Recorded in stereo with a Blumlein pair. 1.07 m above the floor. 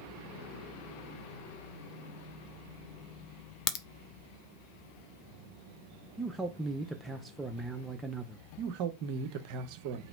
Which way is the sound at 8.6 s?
45° right.